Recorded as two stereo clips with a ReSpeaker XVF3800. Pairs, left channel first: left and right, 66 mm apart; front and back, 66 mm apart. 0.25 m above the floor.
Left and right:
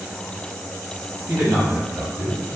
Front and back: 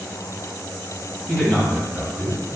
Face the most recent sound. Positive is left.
turn(degrees=-10)